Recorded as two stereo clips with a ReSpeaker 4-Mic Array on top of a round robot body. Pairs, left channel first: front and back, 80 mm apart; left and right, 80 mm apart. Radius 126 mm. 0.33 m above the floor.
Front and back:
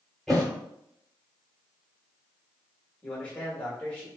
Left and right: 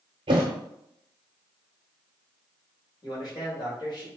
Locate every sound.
0.3 s a thud: 85° right, 0.5 m
3.0 s a man speaking: 70° left, 1.8 m